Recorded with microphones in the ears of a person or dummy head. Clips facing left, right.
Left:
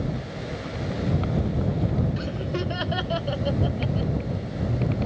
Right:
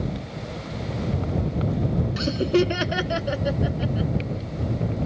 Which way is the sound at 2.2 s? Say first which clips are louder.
Right 9 dB; 65° right (ahead or behind).